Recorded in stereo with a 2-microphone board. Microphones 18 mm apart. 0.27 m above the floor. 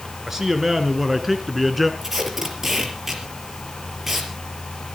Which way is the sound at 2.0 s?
20° right (ahead or behind).